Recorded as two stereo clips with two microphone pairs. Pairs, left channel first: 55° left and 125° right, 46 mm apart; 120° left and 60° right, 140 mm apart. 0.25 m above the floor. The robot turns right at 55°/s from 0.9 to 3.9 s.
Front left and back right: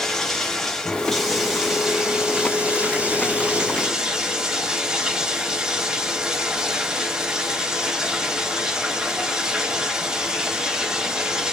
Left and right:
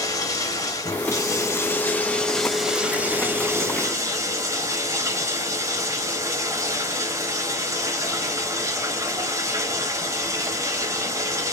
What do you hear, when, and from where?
0.0 s running water: 120° left, 0.7 m; by 11.5 s 75° right, 0.7 m